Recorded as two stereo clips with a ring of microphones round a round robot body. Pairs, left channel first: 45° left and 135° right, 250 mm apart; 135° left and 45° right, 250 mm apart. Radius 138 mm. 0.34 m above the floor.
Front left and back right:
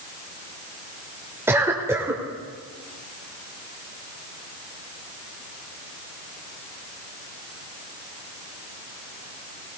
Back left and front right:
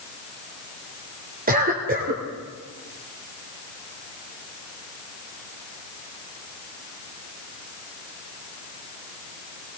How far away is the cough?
About 1.4 m.